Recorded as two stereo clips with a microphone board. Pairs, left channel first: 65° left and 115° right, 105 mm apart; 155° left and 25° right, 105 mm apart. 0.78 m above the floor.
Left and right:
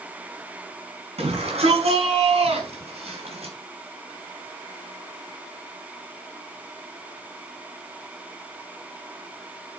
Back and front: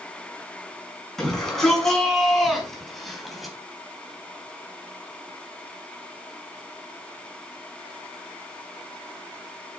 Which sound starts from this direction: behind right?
A shout, at 1.2 s.